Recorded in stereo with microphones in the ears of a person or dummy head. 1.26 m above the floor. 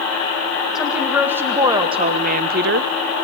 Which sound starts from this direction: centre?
A woman speaking, at 0.8 s.